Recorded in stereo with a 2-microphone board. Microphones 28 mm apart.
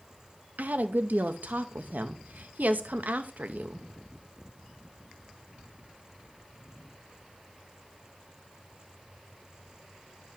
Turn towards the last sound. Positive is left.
turn(degrees=-70)  # may be behind; listen again after turning